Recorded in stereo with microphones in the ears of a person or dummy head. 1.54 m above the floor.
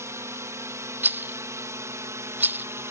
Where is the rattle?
10° right (ahead or behind).